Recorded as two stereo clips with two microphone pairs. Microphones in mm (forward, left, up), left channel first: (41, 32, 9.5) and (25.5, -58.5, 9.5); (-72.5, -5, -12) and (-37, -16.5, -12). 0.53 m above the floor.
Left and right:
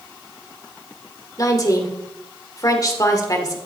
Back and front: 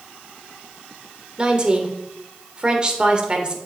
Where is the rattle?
No rattle in this recording.